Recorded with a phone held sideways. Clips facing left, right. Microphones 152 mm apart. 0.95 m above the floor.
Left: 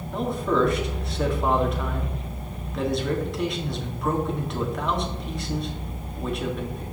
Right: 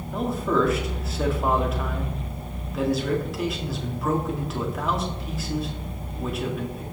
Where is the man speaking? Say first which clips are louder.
Even; 5° right (ahead or behind), 2 m.